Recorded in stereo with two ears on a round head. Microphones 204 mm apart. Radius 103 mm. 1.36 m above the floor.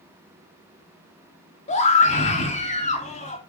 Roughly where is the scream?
Left.